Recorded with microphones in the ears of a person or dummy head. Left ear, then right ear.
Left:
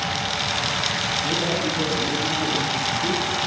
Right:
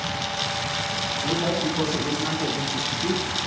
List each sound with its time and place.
1.2 s a man speaking: 65° right (ahead or behind), 8 m; by 3.3 s 55° right (ahead or behind), 9.5 m